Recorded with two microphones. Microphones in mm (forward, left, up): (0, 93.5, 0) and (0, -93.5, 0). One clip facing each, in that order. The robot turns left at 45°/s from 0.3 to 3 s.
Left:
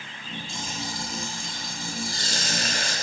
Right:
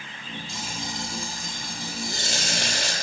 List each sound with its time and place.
0.5 s frying: straight ahead, 7 m; by 2.9 s 110° right, 7 m